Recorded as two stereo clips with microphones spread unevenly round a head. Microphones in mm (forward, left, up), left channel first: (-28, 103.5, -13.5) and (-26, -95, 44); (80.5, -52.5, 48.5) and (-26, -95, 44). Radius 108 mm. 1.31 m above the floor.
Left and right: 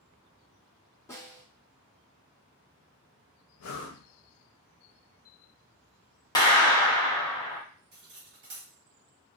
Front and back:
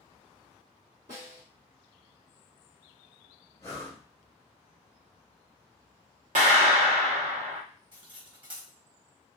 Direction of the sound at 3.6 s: 95° left.